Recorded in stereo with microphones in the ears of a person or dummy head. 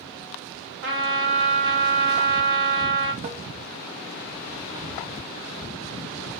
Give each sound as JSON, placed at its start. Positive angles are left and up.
{"t": 0.8, "sound": "a trumpet", "side_deg": -65, "distance_m": 2.0}
{"t": 3.2, "sound": "tapping", "side_deg": -40, "distance_m": 1.1}